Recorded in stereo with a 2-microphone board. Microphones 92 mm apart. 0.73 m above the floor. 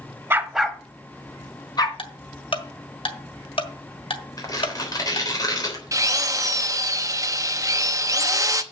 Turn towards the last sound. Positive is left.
turn(degrees=-35)  # may be behind; listen again after turning